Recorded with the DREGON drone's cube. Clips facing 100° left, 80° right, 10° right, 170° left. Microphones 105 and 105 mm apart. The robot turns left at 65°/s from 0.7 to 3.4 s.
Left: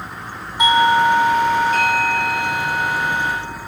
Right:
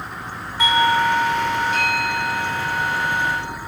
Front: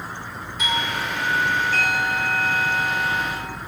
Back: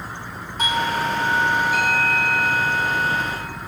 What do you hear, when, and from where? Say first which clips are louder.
0.6 s a doorbell: left 4 dB, back 4 dB; 160° left, 2.5 m; by 3.6 s 15° right, 2.5 m